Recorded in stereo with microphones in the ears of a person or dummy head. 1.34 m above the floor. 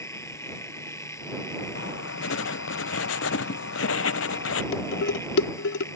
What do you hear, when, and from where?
0.0 s a machine running: 15° left (ahead or behind)
1.8 s writing: 75° left (ahead or behind)
4.7 s dishes clattering: 80° left